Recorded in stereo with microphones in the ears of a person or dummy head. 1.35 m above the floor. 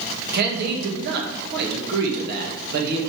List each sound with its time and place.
0.3 s a man speaking: 60° right (ahead or behind), 1.7 m